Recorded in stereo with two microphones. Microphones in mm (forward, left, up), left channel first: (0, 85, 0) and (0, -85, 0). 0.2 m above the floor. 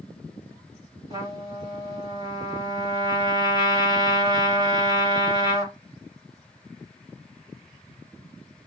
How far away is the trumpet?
About 1.5 m.